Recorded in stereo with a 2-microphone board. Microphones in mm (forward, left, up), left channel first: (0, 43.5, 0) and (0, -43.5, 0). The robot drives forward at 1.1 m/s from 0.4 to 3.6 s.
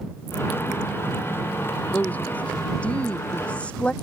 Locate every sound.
1.9 s a woman speaking: 20° left (ahead or behind); by 3.9 s 15° left (ahead or behind)